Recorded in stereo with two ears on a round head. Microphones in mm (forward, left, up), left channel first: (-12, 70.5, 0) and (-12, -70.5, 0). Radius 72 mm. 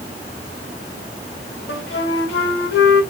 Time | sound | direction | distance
1.7 | a flute | 75° left (ahead or behind) | 1.3 m